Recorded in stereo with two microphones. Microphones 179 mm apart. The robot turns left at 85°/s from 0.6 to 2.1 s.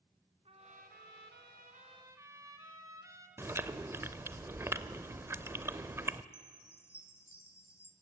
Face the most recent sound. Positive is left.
turn(degrees=15)  # may be behind; listen again after turning